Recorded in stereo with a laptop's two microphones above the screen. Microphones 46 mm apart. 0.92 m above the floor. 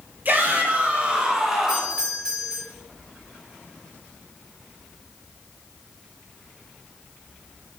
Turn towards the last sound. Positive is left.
turn(degrees=-20)  # may be behind; listen again after turning